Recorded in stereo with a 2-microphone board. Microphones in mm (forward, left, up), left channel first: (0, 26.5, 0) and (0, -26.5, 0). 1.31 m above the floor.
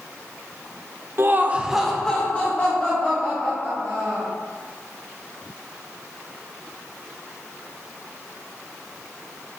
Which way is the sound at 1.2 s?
45° right (ahead or behind).